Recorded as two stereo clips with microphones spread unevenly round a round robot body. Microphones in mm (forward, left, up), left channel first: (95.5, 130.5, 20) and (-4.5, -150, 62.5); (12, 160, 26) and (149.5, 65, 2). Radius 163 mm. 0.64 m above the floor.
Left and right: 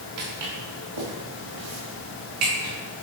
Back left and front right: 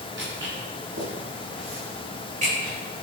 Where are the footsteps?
95° right, 3.5 m; by 2.7 s 105° right, 4.5 m.